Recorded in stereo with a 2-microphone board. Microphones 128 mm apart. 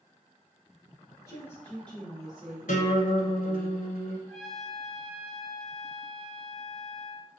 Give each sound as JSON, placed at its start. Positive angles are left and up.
{"t": 1.2, "sound": "a woman speaking", "side_deg": 20, "distance_m": 1.4}
{"t": 2.7, "sound": "a guitar", "side_deg": 80, "distance_m": 0.9}
{"t": 4.3, "sound": "a trumpet", "side_deg": 0, "distance_m": 0.9}